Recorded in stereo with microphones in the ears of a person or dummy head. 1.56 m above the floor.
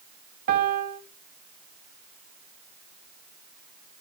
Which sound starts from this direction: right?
A piano, at 0.5 s.